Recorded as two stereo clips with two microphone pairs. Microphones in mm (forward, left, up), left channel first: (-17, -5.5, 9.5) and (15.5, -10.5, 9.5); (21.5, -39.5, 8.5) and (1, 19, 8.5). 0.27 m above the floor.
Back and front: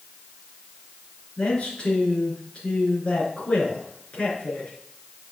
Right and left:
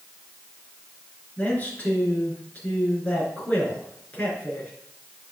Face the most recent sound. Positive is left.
turn(degrees=-135)